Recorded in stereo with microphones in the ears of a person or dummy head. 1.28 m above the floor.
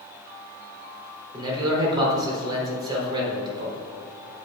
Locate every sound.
1.3 s a man speaking: 20° right (ahead or behind), 4 m